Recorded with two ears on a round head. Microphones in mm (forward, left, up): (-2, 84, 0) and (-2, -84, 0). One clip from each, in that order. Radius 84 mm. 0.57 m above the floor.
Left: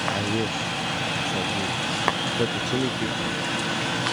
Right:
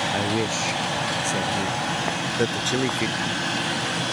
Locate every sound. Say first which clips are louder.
0.1 s a man speaking: right 2 dB; 55° right (ahead or behind); by 3.1 s 50° right (ahead or behind)
2.1 s tapping: left 3 dB; 55° left (ahead or behind)